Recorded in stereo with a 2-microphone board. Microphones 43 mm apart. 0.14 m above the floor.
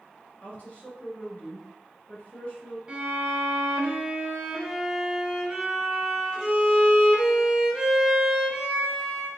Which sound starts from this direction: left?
A woman speaking, at 0.4 s.